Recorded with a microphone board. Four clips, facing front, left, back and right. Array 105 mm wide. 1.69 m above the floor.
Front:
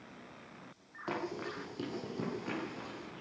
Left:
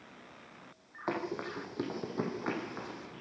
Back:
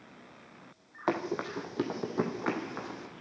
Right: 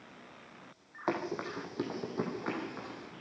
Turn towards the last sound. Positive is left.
turn(degrees=170)